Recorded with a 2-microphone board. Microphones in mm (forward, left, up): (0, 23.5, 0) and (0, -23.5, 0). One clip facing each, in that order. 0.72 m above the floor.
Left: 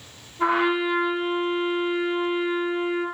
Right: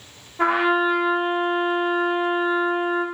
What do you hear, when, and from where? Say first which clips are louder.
0.4 s a trumpet: right 3 dB; 65° right (ahead or behind), 1.5 m